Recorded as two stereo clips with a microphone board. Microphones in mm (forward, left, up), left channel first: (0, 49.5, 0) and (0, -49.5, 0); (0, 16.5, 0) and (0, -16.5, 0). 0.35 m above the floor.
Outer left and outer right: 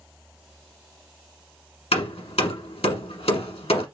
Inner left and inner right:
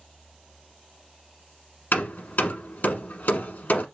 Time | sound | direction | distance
1.9 | hammering | 85° left | 1.0 m